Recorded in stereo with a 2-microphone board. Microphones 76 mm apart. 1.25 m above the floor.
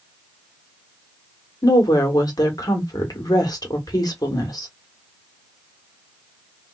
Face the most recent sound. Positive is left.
turn(degrees=50)  # may be behind; listen again after turning